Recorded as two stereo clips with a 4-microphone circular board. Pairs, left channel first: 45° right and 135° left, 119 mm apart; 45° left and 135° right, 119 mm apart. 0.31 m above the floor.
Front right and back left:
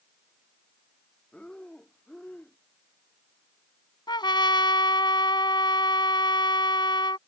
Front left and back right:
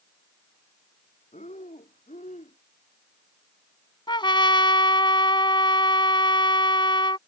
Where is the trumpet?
Straight ahead.